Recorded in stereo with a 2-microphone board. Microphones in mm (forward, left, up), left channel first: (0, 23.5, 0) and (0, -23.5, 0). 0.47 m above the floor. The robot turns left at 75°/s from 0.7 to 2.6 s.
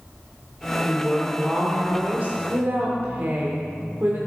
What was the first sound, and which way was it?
A woman speaking, 40° left.